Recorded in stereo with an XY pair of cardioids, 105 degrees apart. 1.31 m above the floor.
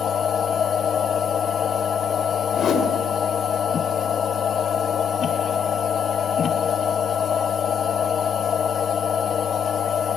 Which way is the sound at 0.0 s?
55° left.